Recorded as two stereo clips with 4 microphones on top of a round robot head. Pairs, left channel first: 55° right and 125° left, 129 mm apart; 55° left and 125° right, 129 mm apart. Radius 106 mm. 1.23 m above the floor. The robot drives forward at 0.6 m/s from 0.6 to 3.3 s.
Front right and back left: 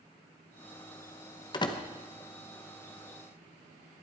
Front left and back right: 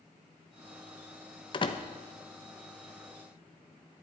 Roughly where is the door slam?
Ahead.